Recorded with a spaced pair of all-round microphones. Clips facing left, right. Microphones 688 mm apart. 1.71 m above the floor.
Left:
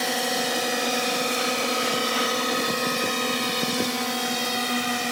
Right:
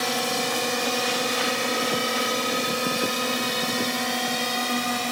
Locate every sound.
0.0 s a drone: 40° right (ahead or behind); by 5.1 s 5° right (ahead or behind)